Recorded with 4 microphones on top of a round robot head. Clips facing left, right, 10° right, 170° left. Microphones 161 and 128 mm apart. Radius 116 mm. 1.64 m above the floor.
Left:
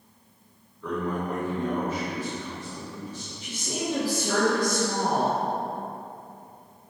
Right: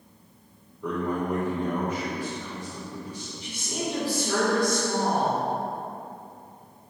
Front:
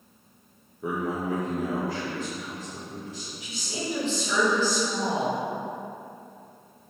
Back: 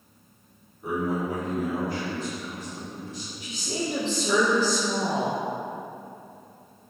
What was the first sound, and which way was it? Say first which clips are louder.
A man speaking: right 1 dB, back 1 dB; 10° right.